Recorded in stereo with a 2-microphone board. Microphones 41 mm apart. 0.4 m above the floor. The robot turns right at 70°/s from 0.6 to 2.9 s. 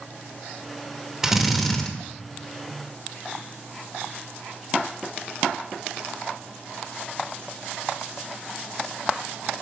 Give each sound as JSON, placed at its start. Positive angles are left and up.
{"t": 1.2, "sound": "a drill", "azimuth_deg": -25, "distance_m": 0.8}